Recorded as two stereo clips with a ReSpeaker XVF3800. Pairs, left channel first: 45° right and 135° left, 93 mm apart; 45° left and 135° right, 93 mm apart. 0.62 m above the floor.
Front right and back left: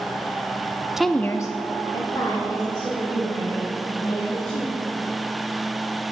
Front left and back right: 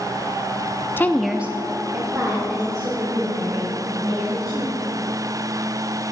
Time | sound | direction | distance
1.0 | a woman speaking | 55° left | 0.6 m